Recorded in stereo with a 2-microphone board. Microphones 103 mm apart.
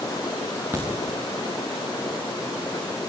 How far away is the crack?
About 6 m.